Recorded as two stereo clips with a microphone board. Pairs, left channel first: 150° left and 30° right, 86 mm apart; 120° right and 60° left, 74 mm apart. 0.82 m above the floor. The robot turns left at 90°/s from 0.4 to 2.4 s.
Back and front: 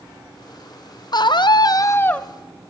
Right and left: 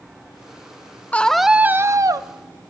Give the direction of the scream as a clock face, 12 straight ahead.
6 o'clock.